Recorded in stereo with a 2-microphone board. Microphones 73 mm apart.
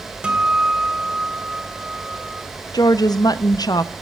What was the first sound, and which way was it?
A guitar, 10° right (ahead or behind).